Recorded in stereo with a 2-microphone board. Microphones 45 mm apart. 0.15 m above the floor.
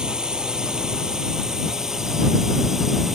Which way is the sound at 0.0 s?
15° right (ahead or behind).